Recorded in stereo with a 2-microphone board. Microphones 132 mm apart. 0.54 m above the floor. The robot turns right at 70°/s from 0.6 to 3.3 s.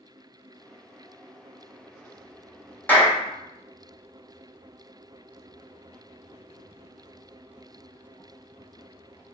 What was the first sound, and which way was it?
A clap, 15° left (ahead or behind).